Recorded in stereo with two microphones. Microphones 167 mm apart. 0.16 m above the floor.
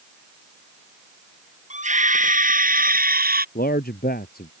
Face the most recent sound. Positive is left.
turn(degrees=65)  # may be behind; listen again after turning